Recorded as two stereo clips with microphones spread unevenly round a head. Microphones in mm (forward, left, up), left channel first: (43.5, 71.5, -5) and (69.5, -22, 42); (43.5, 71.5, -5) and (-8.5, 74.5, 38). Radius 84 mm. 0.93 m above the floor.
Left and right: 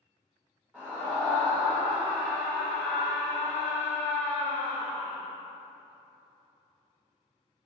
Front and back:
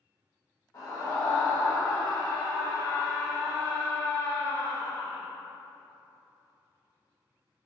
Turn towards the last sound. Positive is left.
turn(degrees=10)